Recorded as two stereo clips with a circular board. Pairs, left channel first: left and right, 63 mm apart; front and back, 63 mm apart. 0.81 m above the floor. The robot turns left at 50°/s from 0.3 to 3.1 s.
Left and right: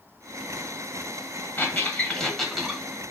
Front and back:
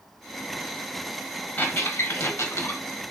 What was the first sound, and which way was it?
A squeak, 50° left.